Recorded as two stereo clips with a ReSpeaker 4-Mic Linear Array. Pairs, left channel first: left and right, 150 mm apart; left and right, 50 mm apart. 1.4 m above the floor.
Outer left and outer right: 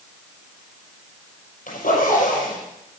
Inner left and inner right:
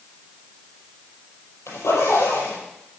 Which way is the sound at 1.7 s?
75° left (ahead or behind).